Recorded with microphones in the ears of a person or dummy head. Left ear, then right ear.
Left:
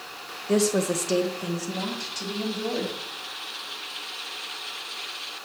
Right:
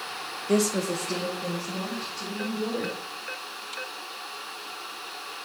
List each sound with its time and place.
0.5 s a woman speaking: 5° right (ahead or behind), 0.6 m; by 2.9 s 75° left (ahead or behind), 3 m